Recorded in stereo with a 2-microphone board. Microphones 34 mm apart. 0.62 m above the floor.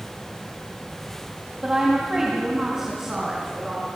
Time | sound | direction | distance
1.6 | a woman speaking | 20° right (ahead or behind) | 3 m